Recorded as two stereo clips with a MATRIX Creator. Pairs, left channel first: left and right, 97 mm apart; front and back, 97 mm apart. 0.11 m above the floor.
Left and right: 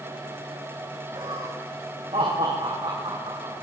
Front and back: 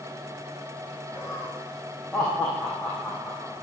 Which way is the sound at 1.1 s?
100° right.